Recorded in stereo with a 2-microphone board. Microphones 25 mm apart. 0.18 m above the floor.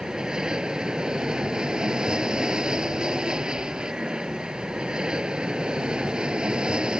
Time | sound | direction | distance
0.0 | an aircraft | 30° right (ahead or behind) | ?